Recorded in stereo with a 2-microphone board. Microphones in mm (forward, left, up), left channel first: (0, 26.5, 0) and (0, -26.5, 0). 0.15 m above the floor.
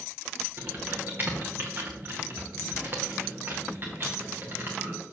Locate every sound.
0.6 s typing on a keyboard: 40° right (ahead or behind), 2 m